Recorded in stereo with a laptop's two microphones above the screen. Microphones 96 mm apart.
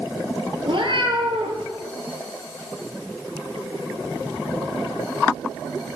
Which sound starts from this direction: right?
A cat meowing, at 0.7 s.